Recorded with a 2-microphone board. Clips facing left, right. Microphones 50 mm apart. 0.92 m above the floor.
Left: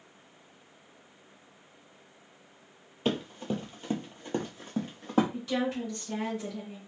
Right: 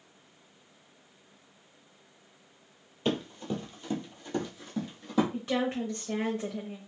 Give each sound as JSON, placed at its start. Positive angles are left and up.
{"t": 3.0, "sound": "running footsteps", "side_deg": 20, "distance_m": 1.1}
{"t": 5.3, "sound": "a woman speaking", "side_deg": -40, "distance_m": 0.9}